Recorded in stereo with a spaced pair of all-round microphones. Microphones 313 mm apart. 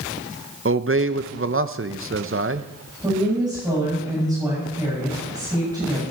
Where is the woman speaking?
10° right (ahead or behind), 8 m.